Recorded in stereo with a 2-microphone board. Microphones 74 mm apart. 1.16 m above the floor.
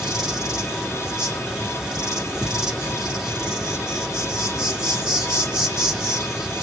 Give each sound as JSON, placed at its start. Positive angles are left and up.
{"t": 0.0, "sound": "an insect", "side_deg": -10, "distance_m": 2.0}